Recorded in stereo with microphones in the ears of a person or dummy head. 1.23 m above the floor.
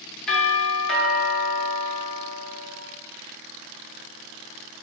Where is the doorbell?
5° left (ahead or behind), 2.5 m.